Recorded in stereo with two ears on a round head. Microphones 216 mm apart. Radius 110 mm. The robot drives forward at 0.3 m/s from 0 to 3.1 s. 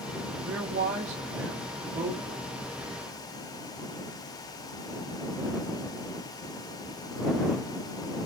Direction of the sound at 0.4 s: 60° right (ahead or behind).